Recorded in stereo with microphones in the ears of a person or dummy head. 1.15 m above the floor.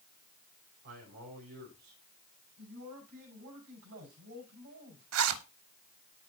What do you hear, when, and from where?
0.8 s a man speaking: 55° right (ahead or behind), 3.5 m
2.6 s a man speaking: 55° right (ahead or behind), 5 m
5.1 s a zipper: 70° right (ahead or behind), 0.9 m